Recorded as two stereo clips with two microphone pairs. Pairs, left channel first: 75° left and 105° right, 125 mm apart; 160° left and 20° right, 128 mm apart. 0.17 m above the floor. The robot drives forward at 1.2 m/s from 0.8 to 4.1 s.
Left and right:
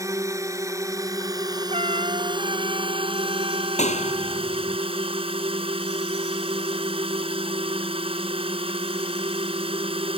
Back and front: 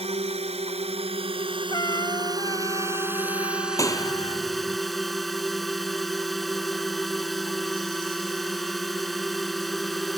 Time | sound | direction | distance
0.0 | a drone | 45° right | ?
1.7 | a trumpet | 145° right | ?
3.8 | a clap | 95° left | ?